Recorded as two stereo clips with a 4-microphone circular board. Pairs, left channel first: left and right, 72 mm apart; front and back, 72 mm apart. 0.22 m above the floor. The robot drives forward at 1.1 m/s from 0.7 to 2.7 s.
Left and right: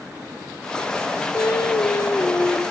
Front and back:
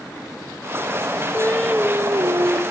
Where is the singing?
50° left, 0.6 m; by 2.6 s 155° left, 1.1 m.